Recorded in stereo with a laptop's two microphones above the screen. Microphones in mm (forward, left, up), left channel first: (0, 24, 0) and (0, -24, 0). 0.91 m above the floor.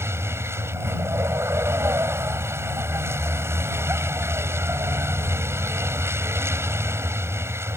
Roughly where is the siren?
No siren in this recording.